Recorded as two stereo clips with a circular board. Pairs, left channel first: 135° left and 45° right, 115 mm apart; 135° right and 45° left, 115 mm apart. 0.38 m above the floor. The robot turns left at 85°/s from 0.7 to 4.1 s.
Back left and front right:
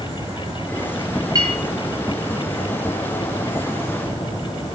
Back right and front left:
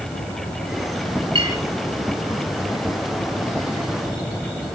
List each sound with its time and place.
1.4 s a clink: 5° left, 5.5 m; by 1.6 s 15° right, 5.5 m